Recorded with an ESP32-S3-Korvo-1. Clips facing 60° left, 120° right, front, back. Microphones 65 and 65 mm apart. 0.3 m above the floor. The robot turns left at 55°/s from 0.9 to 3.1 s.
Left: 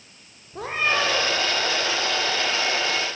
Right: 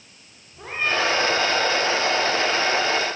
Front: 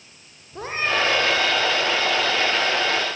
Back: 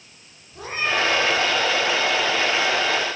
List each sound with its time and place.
0.5 s a cat meowing: 50° left, 7 m; by 1.4 s 25° left, 7 m